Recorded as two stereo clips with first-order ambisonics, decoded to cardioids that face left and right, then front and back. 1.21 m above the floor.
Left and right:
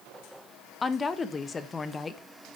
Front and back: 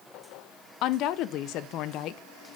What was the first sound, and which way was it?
A woman speaking, 20° left.